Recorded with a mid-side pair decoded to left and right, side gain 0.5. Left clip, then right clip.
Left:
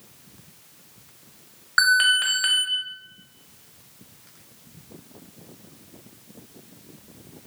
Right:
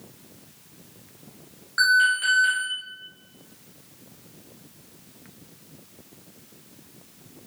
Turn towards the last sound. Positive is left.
turn(degrees=60)